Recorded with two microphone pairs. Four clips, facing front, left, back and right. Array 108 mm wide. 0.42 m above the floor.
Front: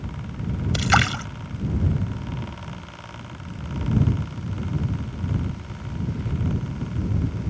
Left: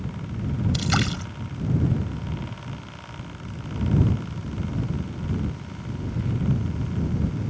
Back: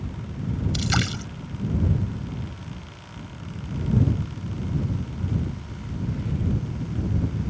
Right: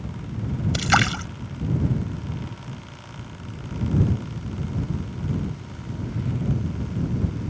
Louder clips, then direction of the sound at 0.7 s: Right 9 dB, front 10 dB; 45° right.